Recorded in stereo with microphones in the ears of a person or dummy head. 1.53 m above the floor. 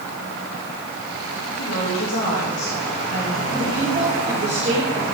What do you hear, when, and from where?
1.6 s a woman speaking: 75° left (ahead or behind), 1.6 m
3.5 s a woman speaking: 30° right (ahead or behind), 2.5 m